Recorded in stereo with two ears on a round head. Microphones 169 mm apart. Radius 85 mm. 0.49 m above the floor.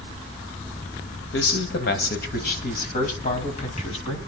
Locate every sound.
1.3 s a man speaking: 65° left (ahead or behind), 3 m; by 4.2 s 30° left (ahead or behind), 4.5 m